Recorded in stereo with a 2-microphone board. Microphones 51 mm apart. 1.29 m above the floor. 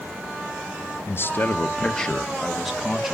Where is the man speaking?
50° left (ahead or behind), 1.0 m; by 3.1 s 10° right (ahead or behind), 1.8 m.